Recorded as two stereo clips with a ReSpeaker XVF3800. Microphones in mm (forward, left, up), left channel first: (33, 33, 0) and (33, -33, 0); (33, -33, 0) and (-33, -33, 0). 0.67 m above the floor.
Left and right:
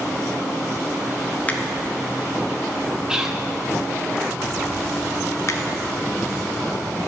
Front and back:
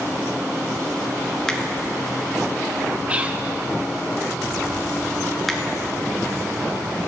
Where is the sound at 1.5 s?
65° left, 0.9 m.